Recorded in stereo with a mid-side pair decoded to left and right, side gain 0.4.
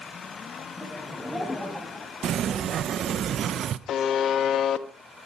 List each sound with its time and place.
0.8 s laughter: 5° left, 6.5 m
2.2 s a sliding door: 65° right, 0.8 m
3.9 s a buzzer: 70° left, 1.1 m